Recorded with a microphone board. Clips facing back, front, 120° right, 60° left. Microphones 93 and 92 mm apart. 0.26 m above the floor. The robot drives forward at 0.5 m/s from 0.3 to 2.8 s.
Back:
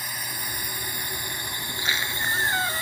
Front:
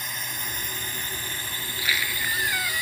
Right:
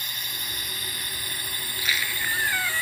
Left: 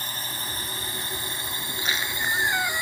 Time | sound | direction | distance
0.0 | a drone | 95° left | ?
1.7 | a squeak | 115° left | ?